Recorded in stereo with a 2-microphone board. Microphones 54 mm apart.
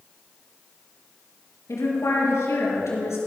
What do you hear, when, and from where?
1.7 s a woman speaking: 75° left (ahead or behind), 4.5 m